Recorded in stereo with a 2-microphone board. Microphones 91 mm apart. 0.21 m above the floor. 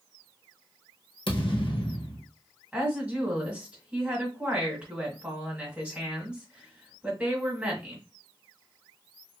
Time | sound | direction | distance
1.3 | a thud | 65° left (ahead or behind) | 1.2 m
2.7 | a woman speaking | 15° right (ahead or behind) | 1.4 m